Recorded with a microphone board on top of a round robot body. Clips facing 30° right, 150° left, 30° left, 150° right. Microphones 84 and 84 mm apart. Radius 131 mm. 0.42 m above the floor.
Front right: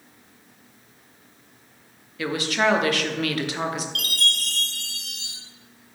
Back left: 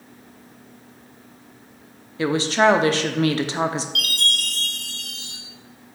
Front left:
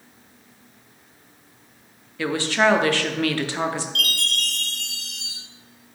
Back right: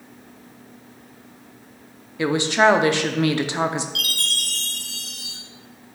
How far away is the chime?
About 2.5 m.